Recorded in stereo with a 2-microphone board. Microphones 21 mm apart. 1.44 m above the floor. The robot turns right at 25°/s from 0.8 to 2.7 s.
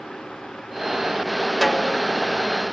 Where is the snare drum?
Centre (ahead or behind), 1.3 m; by 2.0 s 10° left (ahead or behind), 1.3 m.